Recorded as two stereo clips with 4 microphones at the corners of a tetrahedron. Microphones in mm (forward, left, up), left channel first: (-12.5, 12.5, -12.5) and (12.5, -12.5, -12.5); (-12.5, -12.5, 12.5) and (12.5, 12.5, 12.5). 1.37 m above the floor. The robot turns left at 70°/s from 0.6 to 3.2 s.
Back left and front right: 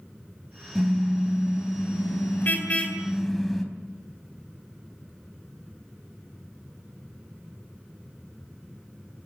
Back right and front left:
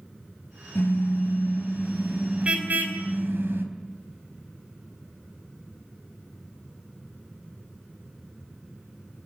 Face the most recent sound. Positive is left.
turn(degrees=50)